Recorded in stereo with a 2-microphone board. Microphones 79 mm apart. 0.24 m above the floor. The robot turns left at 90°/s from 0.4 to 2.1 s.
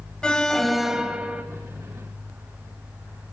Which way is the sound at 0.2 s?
10° left (ahead or behind).